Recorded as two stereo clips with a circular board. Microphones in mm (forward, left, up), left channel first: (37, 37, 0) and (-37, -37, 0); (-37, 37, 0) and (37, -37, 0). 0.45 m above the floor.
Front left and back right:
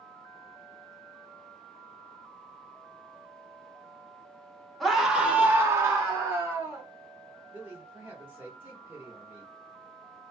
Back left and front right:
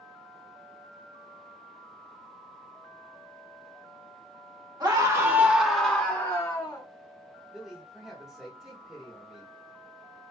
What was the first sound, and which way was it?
A scream, 45° right.